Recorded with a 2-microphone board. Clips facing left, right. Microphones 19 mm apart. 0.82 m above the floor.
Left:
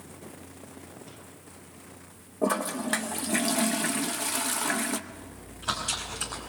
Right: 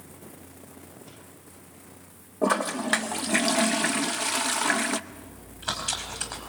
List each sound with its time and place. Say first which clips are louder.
2.4 s a toilet flushing: right 3 dB; 25° right (ahead or behind), 0.7 m
5.1 s chewing: left 1 dB; 20° right (ahead or behind), 4.5 m